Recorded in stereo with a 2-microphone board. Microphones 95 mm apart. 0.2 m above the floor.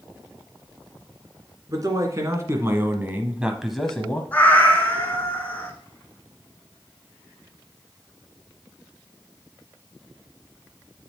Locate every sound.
1.7 s a man speaking: 40° right (ahead or behind), 1.9 m; by 4.2 s 15° left (ahead or behind), 1.0 m
4.3 s a cat meowing: 20° left (ahead or behind), 1.3 m